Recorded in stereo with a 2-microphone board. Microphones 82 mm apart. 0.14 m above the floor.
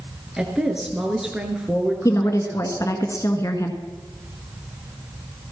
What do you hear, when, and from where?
0.4 s a woman speaking: 5° right (ahead or behind), 2 m
2.0 s a woman speaking: 40° left (ahead or behind), 1.5 m